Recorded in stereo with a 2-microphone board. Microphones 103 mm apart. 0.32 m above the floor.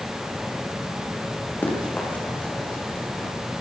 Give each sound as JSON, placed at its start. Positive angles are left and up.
{"t": 1.6, "sound": "running footsteps", "side_deg": 15, "distance_m": 9.5}